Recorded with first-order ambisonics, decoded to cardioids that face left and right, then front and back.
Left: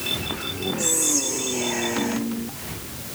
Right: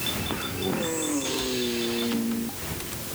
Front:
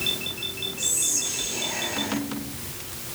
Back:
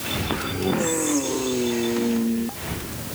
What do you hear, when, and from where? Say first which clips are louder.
0.8 s whispering: left 5 dB, front 1 dB; 80° left, 1.4 m